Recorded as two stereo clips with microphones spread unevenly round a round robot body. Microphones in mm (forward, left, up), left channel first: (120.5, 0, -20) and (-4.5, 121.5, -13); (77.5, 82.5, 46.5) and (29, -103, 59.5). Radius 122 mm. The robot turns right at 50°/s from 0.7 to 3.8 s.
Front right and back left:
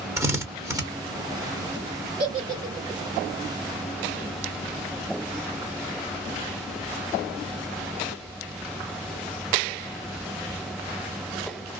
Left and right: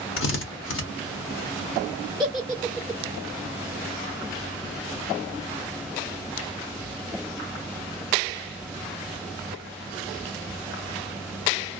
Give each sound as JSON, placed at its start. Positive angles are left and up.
{"t": 0.2, "sound": "a drill", "azimuth_deg": 60, "distance_m": 1.1}
{"t": 2.2, "sound": "a giggle", "azimuth_deg": -175, "distance_m": 1.7}